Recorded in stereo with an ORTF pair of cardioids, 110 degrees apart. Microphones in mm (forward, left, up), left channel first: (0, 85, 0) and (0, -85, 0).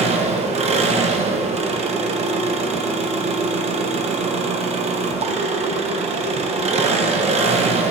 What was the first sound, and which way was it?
An engine running, 40° right.